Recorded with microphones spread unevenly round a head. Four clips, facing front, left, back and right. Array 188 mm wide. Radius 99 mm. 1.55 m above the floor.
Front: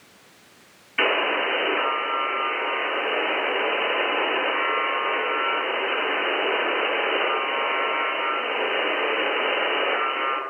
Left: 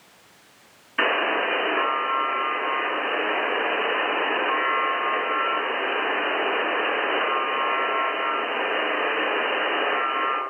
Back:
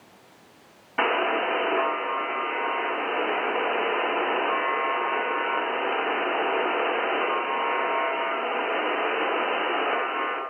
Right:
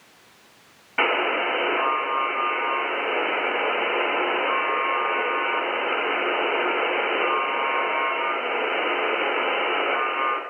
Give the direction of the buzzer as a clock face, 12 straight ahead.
5 o'clock.